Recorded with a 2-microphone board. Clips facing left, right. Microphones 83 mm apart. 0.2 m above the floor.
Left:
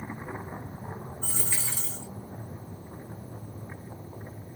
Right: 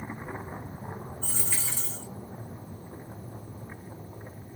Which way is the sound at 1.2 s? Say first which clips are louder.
Left 1 dB; 15° left (ahead or behind).